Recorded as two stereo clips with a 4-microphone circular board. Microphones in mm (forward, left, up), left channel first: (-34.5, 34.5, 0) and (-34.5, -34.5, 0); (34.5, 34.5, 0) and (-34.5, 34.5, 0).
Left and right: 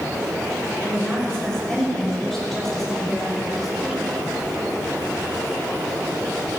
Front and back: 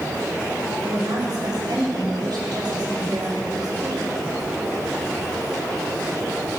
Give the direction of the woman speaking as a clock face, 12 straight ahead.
6 o'clock.